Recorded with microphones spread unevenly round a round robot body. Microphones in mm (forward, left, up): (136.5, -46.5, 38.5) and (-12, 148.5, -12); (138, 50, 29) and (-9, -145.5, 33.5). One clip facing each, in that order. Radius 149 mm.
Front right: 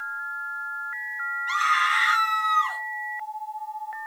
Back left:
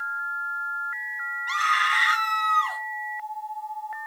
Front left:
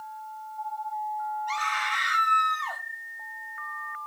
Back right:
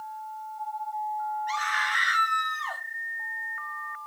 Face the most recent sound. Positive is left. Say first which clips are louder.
# front right 1 dB, even
turn(degrees=155)